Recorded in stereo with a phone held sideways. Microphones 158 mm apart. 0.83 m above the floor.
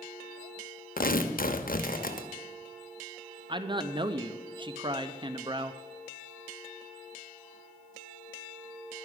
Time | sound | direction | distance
1.0 | tearing paper | 65° left (ahead or behind) | 0.9 m
3.5 | a man speaking | 30° right (ahead or behind) | 0.6 m